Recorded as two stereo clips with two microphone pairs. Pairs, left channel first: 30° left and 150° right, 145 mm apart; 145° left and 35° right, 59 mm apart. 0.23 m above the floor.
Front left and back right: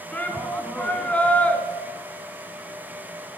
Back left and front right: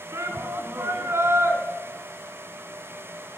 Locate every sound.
0.1 s a shout: 50° right, 2.5 m